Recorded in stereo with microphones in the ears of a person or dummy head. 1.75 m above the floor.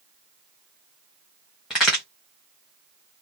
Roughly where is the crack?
Centre.